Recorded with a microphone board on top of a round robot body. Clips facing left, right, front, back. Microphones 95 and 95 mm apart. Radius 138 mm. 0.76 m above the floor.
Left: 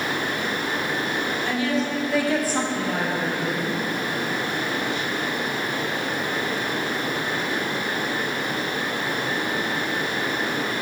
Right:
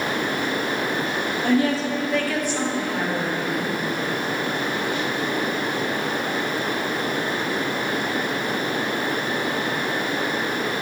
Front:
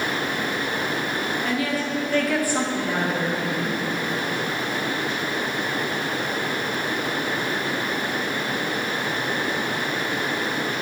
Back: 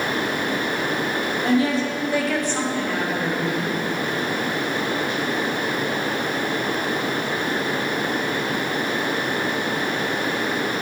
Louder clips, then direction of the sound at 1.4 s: Right 6 dB, back 9 dB; 125° right.